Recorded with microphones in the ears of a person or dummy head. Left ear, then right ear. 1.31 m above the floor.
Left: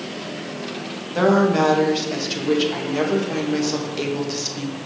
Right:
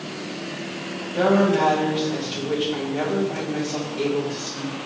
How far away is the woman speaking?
About 1.8 m.